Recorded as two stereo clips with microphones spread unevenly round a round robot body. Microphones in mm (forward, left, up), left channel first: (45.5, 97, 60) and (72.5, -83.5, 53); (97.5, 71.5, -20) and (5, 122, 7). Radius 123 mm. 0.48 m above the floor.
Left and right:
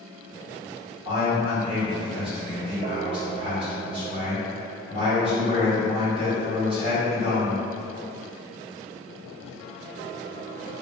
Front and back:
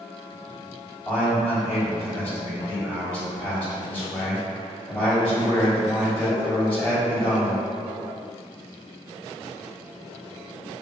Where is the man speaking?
125° right, 1.5 m.